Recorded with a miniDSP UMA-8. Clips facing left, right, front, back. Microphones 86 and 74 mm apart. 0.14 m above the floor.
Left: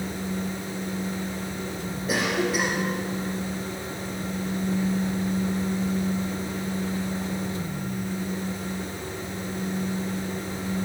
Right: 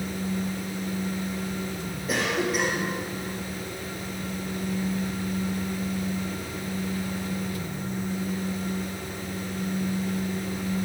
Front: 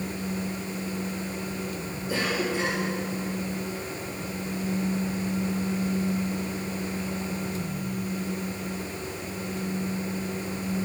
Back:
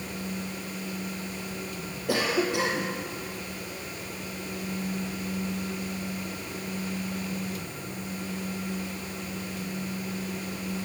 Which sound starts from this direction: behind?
A cough, at 2.1 s.